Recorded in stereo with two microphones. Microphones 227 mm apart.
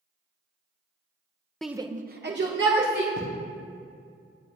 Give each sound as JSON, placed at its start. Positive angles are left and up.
{"t": 1.6, "sound": "a shout", "side_deg": 5, "distance_m": 0.5}
{"t": 3.2, "sound": "writing", "side_deg": -65, "distance_m": 2.0}